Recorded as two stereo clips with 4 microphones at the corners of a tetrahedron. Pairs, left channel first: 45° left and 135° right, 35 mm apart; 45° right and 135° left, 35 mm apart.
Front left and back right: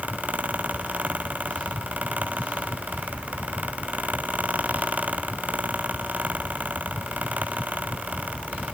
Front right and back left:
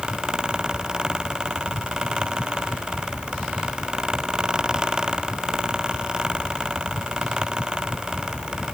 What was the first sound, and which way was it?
Only background noise.